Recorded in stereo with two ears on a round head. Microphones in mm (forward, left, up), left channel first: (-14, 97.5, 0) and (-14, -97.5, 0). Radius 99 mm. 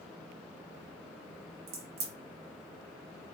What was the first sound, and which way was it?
A crack, 45° right (ahead or behind).